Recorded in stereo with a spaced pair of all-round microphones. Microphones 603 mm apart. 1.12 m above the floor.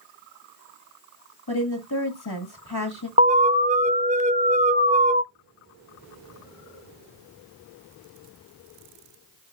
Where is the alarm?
15° right (ahead or behind), 0.6 m.